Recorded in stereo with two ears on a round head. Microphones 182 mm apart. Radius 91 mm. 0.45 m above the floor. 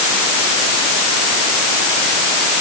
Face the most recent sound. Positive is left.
No sound to turn to.